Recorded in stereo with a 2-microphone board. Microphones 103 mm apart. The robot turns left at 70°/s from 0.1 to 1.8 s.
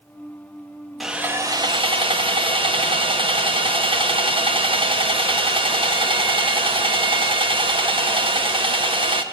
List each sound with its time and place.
1.0 s sawing: straight ahead, 1.3 m; by 9.2 s 55° right, 1.3 m